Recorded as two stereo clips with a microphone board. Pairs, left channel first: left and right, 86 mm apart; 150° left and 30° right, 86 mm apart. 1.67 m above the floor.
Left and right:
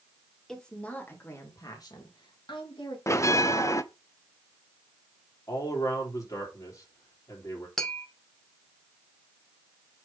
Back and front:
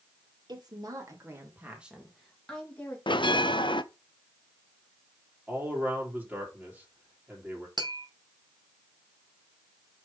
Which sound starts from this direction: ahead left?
A man speaking, at 5.5 s.